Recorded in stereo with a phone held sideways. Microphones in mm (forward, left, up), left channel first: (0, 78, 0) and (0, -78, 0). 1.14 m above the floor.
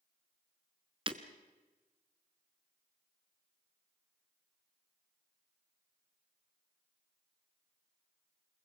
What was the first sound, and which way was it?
Breaking glass, 35° right (ahead or behind).